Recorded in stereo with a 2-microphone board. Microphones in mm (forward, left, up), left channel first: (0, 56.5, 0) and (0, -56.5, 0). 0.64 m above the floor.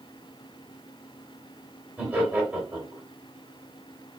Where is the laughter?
15° right (ahead or behind), 2.5 m.